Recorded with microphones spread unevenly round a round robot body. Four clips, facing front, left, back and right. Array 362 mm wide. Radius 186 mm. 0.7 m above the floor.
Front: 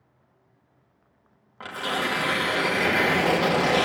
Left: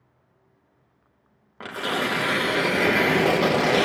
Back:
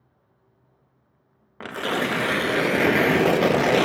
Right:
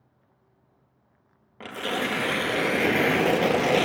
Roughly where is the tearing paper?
Behind.